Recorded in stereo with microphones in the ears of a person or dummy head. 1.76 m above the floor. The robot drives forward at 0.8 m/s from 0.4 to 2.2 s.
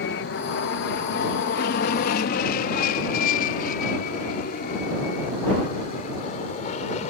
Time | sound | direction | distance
0.0 | an aircraft | 60° left (ahead or behind) | ?